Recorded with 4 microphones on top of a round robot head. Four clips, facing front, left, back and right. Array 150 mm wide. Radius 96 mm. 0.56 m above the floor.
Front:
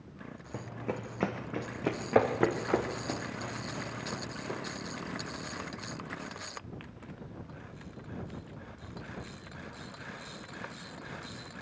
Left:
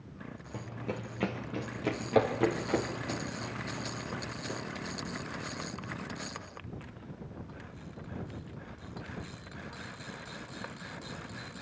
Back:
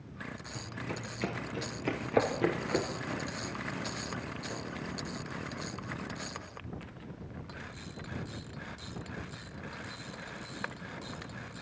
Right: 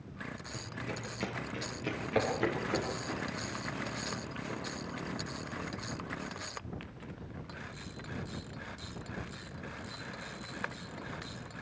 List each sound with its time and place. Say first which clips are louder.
0.5 s running footsteps: left 5 dB, front 5 dB; 25° left, 2.5 m; by 4.6 s 15° left, 5.5 m